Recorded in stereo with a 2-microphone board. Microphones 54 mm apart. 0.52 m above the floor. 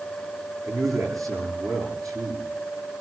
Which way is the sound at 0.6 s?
85° right.